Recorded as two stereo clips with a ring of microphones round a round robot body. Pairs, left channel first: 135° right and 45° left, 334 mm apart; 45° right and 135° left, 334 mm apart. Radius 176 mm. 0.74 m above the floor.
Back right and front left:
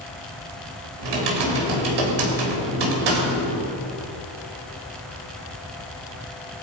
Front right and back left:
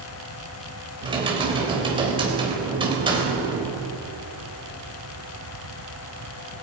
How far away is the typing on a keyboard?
About 3.5 m.